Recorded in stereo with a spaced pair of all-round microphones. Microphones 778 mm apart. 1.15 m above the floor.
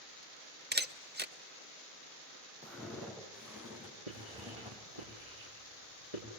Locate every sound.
0.7 s a camera shutter: 15° right (ahead or behind), 0.6 m
2.6 s footsteps: centre (ahead or behind), 6 m; by 5.1 s 10° right (ahead or behind), 4.5 m
4.1 s writing: 50° right (ahead or behind), 7.5 m